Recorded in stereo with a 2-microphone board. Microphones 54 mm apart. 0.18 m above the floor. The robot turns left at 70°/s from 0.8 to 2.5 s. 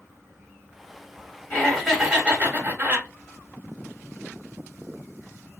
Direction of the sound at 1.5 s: 20° left.